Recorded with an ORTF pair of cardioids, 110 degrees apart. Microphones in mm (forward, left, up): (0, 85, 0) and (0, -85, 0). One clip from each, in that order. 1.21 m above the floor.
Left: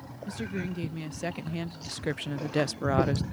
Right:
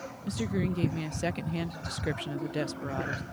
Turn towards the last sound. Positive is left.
turn(degrees=70)